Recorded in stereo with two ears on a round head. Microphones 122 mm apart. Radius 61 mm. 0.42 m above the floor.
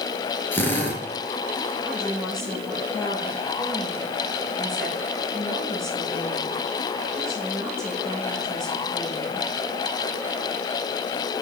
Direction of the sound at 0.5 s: 15° left (ahead or behind).